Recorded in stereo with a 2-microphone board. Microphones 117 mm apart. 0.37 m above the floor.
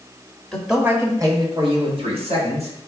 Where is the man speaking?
5° left (ahead or behind), 1.2 m; by 2.7 s 65° right (ahead or behind), 2.5 m.